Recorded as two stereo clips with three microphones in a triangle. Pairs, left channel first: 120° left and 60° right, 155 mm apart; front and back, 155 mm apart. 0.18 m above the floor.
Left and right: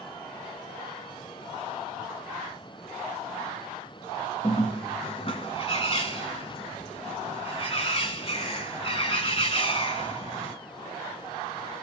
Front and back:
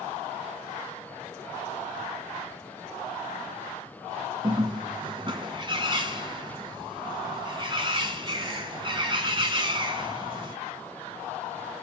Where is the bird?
145° left, 1.2 m.